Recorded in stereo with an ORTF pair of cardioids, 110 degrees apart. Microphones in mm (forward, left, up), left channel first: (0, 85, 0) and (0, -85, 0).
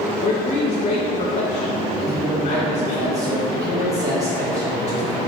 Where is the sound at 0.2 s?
45° left, 0.7 m.